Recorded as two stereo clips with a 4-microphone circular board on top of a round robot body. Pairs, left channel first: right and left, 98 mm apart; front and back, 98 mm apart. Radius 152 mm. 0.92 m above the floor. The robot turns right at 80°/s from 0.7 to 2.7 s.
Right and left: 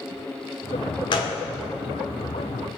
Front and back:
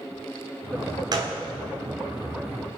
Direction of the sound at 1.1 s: 130° right.